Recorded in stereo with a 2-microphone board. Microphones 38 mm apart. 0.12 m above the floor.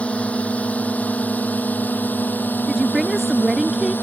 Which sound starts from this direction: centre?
A woman speaking, at 2.7 s.